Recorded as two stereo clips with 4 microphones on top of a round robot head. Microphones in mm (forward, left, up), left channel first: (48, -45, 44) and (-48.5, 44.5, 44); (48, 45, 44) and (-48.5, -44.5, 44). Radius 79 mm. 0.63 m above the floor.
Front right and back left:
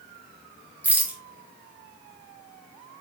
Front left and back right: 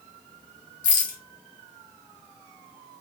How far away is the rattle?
About 2 m.